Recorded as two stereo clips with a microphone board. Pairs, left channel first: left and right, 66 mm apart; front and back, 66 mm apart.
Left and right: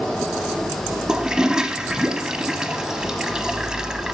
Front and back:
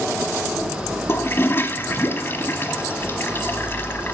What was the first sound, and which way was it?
A toilet flushing, 20° right.